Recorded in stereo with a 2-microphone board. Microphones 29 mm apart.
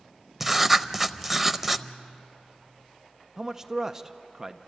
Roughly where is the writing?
Centre.